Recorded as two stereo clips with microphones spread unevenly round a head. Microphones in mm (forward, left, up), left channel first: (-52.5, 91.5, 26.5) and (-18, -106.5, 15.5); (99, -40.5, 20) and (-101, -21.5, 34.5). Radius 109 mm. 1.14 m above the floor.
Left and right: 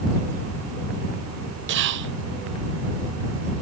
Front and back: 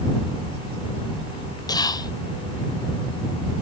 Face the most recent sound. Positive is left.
turn(degrees=-70)